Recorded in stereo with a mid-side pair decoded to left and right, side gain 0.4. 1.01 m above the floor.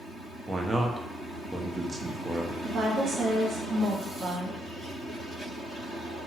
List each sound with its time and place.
0.5 s a man speaking: 20° right, 0.7 m
2.6 s a woman speaking: 50° right, 1.3 m